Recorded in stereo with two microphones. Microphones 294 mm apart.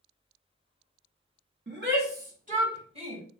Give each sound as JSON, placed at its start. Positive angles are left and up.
{"t": 1.7, "sound": "a shout", "side_deg": -40, "distance_m": 1.6}